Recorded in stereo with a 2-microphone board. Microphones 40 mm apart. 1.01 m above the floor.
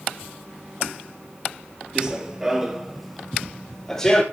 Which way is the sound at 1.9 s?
20° right (ahead or behind).